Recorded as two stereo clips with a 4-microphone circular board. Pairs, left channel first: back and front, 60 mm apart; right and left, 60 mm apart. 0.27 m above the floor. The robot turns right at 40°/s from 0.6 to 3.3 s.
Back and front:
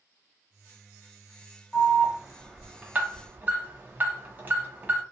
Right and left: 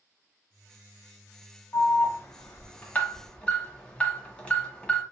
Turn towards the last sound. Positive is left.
turn(degrees=-30)